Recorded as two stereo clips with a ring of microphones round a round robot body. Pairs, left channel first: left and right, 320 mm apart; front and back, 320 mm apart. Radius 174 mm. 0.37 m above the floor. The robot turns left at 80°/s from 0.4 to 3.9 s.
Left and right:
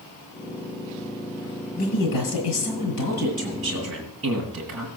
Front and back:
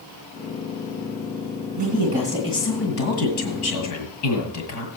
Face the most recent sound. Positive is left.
turn(degrees=-35)